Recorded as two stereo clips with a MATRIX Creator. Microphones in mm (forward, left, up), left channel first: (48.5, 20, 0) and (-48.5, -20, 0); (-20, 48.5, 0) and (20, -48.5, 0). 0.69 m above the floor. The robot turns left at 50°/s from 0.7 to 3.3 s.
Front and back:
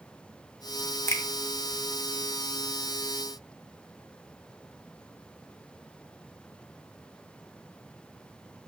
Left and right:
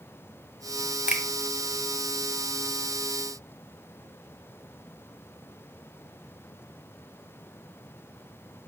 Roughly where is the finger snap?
Ahead.